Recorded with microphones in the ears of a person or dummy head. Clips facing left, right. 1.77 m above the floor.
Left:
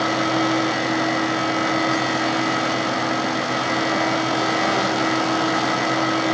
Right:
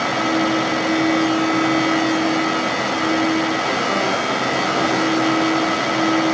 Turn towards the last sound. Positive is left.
No sound to turn to.